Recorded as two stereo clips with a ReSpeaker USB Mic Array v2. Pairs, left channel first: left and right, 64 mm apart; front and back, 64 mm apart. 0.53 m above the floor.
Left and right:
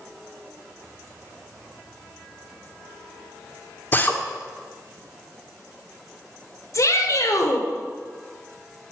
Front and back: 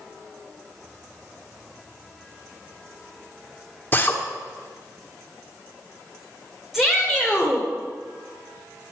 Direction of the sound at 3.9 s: 45° left.